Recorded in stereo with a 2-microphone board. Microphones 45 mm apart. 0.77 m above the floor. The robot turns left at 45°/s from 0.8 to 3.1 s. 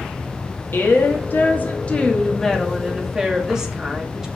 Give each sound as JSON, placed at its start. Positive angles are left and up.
{"t": 0.7, "sound": "a woman speaking", "azimuth_deg": 90, "distance_m": 1.5}